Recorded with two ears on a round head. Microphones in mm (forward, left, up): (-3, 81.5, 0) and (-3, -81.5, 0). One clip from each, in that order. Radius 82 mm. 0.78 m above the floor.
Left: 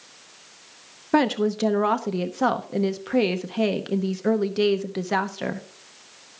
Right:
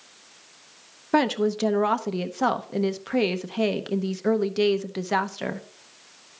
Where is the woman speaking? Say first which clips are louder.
Left 1 dB; 10° right (ahead or behind), 0.7 m.